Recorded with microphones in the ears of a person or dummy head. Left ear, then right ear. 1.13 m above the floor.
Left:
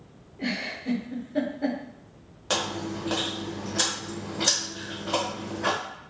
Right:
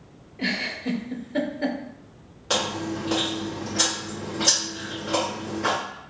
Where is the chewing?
10° left (ahead or behind), 1.0 m.